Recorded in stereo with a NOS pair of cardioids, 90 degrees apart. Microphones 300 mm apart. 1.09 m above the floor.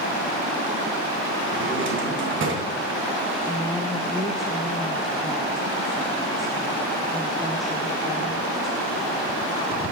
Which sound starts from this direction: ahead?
A woman speaking, at 3.4 s.